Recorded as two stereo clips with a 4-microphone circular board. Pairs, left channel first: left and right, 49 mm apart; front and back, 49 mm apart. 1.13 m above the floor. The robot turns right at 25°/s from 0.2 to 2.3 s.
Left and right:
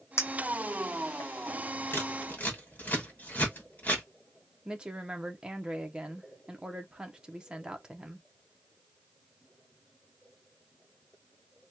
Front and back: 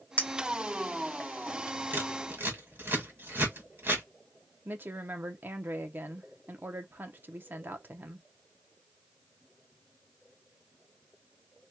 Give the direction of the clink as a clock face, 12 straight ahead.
10 o'clock.